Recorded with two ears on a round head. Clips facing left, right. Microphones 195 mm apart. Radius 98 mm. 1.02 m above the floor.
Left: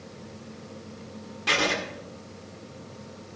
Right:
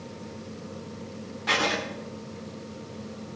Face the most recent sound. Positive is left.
turn(degrees=35)  # may be behind; listen again after turning